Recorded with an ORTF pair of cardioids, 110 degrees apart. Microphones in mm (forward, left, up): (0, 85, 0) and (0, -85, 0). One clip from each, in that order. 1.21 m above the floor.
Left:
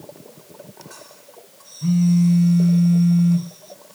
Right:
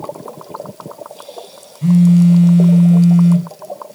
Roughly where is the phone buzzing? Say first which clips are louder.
Right 7 dB; ahead right.